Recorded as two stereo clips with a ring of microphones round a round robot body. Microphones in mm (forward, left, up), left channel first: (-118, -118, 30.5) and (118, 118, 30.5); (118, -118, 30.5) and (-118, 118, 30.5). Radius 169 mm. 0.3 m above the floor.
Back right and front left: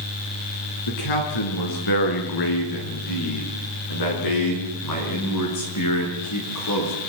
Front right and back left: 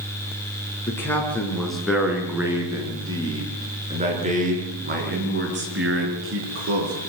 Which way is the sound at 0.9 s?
125° right.